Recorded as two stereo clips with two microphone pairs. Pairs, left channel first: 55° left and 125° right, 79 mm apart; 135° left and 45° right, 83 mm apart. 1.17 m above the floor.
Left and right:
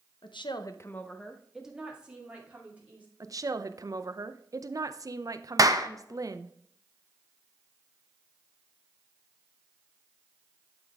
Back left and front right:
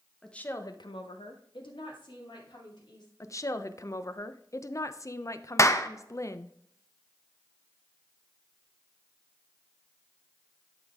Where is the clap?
170° right, 0.6 m.